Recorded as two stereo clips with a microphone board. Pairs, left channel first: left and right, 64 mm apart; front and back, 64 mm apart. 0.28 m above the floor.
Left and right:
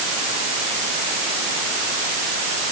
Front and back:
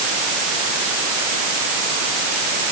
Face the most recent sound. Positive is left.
No sound to turn to.